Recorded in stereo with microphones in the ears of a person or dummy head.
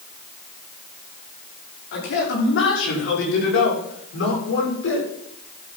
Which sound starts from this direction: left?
A man speaking, at 1.9 s.